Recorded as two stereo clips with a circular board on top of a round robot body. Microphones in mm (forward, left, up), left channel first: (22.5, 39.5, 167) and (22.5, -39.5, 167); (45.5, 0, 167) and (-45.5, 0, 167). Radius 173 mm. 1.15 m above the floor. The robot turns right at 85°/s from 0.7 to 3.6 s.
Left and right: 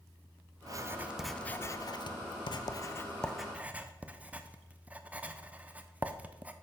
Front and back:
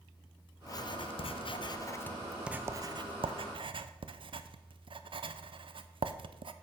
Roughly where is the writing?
Ahead right.